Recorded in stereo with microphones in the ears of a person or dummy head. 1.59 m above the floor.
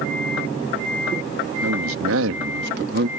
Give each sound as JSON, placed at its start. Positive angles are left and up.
{"t": 1.6, "sound": "a man speaking", "side_deg": -85}